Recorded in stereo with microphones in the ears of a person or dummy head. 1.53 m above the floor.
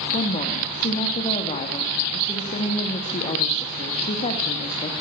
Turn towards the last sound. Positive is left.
turn(degrees=30)  # may be behind; listen again after turning